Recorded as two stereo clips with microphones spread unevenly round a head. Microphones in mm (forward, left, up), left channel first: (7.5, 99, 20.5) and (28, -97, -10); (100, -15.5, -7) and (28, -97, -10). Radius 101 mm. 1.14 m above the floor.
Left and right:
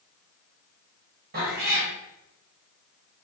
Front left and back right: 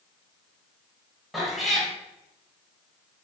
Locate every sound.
1.3 s a cat meowing: 40° right, 3 m